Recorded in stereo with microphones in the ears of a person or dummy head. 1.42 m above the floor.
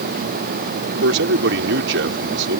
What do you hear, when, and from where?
1.0 s a man speaking: 75° right (ahead or behind)